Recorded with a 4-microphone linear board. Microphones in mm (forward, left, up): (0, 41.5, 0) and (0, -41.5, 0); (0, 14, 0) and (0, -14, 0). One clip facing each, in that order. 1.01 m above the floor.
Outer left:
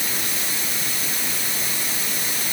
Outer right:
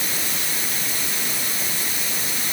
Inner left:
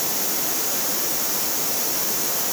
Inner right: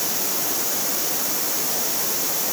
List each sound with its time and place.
Only background noise.